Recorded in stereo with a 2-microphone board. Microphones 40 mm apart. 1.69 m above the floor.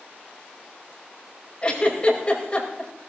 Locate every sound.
1.6 s a giggle: 25° left (ahead or behind), 5 m